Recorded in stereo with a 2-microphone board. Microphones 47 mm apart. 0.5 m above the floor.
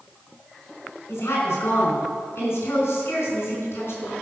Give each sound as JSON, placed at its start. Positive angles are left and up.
{"t": 1.1, "sound": "a woman speaking", "side_deg": 65, "distance_m": 5.0}